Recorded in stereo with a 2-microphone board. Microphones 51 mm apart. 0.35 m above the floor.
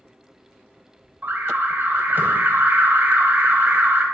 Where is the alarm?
40° right (ahead or behind), 1.1 m.